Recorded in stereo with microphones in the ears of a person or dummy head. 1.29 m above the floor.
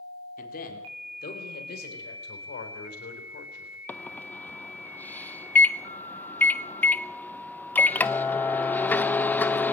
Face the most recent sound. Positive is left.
turn(degrees=10)  # may be behind; listen again after turning